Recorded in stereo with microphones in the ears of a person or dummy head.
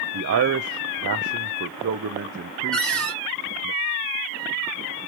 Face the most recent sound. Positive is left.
turn(degrees=0)  # may be behind; listen again after turning